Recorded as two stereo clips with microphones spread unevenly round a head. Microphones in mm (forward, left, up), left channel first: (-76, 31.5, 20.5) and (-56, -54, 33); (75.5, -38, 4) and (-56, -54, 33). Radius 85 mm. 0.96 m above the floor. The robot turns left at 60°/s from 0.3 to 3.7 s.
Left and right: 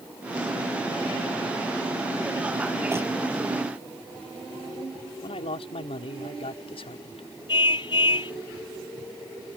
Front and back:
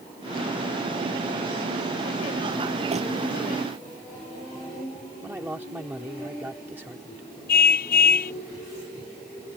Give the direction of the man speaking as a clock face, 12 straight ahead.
8 o'clock.